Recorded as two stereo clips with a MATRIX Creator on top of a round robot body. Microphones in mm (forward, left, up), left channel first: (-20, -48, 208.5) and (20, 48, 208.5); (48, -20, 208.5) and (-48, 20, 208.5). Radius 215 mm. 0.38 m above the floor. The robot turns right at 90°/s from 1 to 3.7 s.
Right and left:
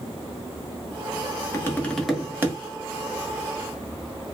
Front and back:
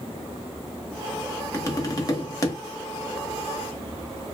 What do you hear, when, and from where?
1.5 s tapping: 70° right, 1.3 m; by 2.6 s 25° left, 1.3 m